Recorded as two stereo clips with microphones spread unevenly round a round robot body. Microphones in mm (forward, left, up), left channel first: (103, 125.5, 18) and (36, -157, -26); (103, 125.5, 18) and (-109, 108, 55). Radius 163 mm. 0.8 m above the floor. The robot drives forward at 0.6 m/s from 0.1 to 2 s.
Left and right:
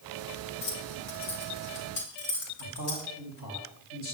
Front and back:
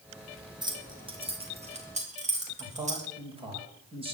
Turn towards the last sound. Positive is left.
turn(degrees=120)